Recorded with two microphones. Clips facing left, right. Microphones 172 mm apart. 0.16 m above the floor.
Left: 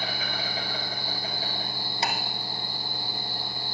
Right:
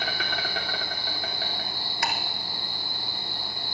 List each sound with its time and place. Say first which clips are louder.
0.0 s an insect: right 1 dB; 70° right (ahead or behind), 2.5 m
2.0 s ticking: left 1 dB; 25° left (ahead or behind), 1.1 m